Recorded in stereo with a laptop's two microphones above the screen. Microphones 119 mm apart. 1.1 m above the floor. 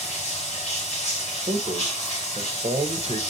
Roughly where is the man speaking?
Right.